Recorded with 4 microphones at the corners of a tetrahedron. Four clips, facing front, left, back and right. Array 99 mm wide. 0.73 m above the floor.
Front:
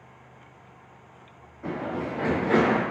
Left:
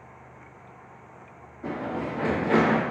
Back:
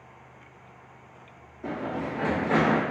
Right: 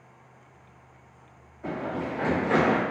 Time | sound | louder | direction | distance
1.6 | running footsteps | even, front 1 dB | 25° left | 1.8 m